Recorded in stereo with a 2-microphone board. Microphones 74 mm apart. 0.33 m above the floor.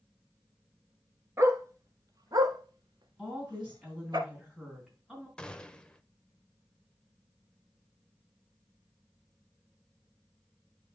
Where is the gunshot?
15° left (ahead or behind), 0.7 m.